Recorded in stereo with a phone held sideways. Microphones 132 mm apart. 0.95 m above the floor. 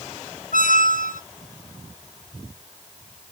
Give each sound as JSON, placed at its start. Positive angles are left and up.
{"t": 0.5, "sound": "a squeak", "side_deg": 70, "distance_m": 0.6}